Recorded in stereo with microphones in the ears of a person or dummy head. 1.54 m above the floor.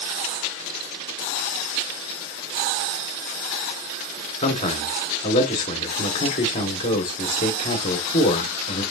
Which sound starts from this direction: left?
A man speaking, at 4.4 s.